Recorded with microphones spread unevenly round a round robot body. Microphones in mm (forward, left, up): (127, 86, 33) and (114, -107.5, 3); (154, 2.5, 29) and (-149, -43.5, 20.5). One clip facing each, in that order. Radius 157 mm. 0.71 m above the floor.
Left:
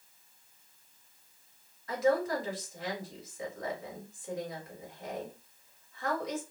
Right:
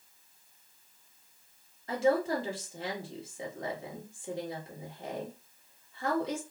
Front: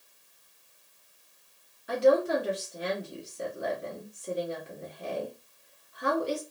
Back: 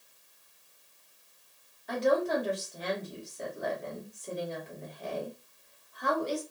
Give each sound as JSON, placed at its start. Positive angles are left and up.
{"t": 1.9, "sound": "a woman speaking", "azimuth_deg": -65, "distance_m": 1.3}